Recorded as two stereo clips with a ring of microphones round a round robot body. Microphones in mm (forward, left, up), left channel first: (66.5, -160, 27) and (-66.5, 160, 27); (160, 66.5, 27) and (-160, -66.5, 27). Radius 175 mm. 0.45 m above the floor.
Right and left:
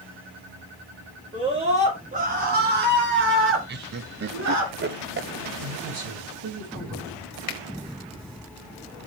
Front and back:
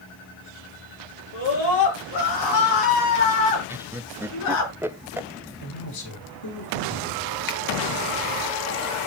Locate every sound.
1.3 s a scream: 35° left, 6.5 m; by 4.7 s 70° left, 5.5 m
3.7 s laughter: 125° left, 0.8 m
5.6 s a man speaking: 60° left, 6 m
7.5 s a finger snap: 40° right, 2.5 m